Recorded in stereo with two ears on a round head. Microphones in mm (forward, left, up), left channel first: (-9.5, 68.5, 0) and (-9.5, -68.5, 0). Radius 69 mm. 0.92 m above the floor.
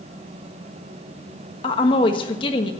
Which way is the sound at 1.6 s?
30° left (ahead or behind).